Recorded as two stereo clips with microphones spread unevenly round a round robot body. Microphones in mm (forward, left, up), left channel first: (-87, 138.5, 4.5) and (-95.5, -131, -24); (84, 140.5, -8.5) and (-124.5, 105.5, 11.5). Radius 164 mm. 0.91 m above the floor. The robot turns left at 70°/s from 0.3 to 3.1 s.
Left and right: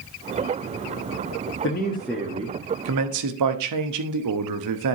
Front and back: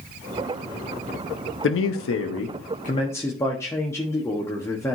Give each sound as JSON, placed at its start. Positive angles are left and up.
{"t": 1.6, "sound": "a man speaking", "azimuth_deg": 30, "distance_m": 0.9}